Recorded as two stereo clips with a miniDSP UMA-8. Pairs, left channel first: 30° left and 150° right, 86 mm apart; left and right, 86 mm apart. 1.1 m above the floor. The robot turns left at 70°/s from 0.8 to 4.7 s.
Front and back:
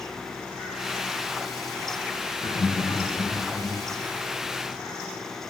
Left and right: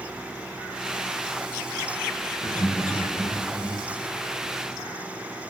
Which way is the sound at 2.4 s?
55° left.